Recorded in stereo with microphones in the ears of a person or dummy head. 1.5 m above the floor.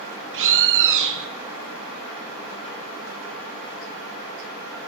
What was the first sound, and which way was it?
A bird, 60° right (ahead or behind).